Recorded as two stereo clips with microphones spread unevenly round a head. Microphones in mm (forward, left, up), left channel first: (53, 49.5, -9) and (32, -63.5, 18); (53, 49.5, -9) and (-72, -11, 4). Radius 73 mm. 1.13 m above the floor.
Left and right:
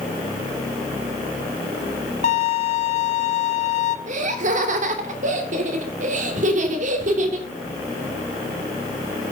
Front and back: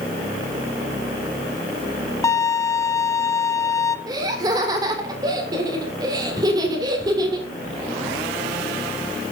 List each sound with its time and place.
2.2 s a violin: 95° left, 1.2 m
4.1 s laughter: 85° right, 3 m